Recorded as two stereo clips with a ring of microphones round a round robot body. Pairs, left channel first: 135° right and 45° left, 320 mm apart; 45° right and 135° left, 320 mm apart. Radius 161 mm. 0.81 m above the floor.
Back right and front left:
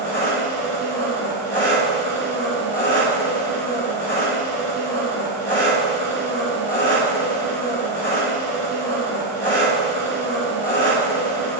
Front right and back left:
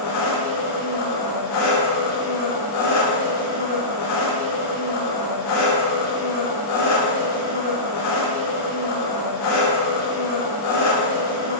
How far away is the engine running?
About 4 m.